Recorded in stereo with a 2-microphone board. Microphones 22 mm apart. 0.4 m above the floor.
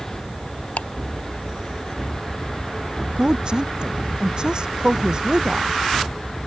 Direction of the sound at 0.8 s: 75° left (ahead or behind).